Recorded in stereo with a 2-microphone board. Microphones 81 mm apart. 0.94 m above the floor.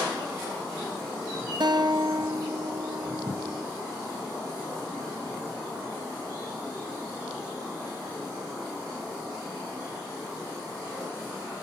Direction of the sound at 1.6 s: 65° right (ahead or behind).